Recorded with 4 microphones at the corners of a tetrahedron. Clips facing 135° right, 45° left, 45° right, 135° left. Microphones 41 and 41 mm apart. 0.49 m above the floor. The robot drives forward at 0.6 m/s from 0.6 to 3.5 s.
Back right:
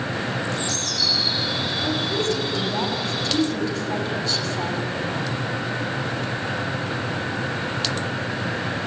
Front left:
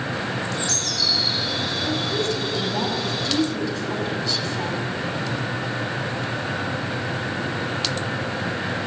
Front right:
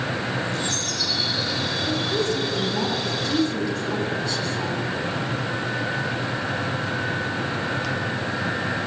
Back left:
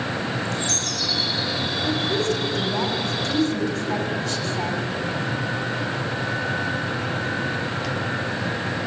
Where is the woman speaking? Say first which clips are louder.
Back right 1 dB, back left 2 dB; 175° left, 4 m.